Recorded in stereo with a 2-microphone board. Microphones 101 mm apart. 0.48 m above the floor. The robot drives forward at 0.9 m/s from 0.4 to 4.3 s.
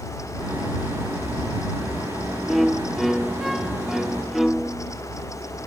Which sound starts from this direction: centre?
A violin, at 2.5 s.